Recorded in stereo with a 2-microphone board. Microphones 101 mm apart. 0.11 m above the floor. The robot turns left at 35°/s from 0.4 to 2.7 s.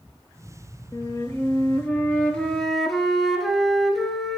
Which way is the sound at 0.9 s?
65° left.